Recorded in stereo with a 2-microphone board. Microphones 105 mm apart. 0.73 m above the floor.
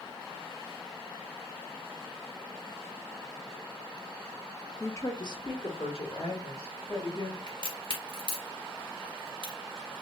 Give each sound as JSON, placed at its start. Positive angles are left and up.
{"t": 4.8, "sound": "a woman speaking", "side_deg": 20, "distance_m": 0.8}
{"t": 7.5, "sound": "a crack", "side_deg": 45, "distance_m": 2.0}